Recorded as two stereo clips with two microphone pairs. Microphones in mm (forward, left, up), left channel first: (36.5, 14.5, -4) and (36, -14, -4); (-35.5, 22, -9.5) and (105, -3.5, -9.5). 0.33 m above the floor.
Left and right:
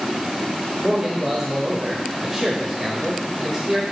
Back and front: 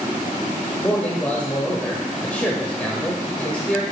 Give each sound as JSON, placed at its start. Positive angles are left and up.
{"t": 0.8, "sound": "a man speaking", "azimuth_deg": -125, "distance_m": 1.1}